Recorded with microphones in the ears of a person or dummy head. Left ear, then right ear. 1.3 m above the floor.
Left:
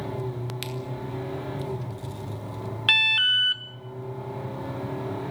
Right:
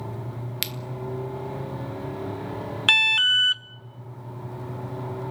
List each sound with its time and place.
0.6 s a finger snap: 25° right (ahead or behind), 1.1 m
2.9 s an alarm: 35° right (ahead or behind), 0.6 m